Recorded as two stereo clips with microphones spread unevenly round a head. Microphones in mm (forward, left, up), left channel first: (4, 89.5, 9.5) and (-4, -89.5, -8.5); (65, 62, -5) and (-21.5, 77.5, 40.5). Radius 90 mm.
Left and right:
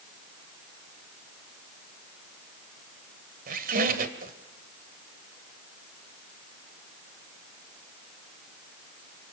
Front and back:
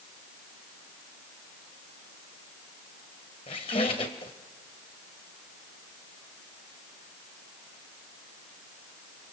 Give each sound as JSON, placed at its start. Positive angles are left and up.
{"t": 3.5, "sound": "a squeak", "azimuth_deg": -75, "distance_m": 1.6}